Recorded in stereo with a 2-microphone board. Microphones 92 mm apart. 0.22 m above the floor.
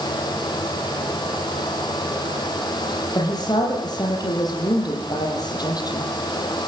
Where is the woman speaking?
45° left (ahead or behind), 8 m.